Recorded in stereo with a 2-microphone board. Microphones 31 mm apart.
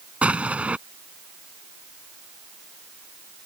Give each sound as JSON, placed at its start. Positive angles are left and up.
{"t": 0.2, "sound": "an explosion", "side_deg": -40}